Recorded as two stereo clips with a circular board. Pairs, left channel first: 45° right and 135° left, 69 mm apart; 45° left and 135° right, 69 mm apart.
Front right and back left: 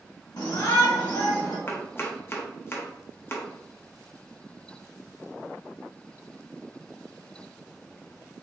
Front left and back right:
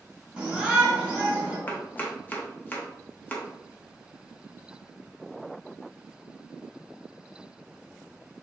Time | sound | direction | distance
0.4 | a shout | 60° right | 1.7 m
1.7 | chopping | 5° right | 0.7 m